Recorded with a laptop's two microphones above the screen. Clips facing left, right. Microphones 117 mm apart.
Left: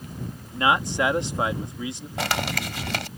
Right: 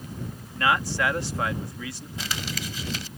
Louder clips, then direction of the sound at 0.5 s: Left 2 dB; 20° left (ahead or behind).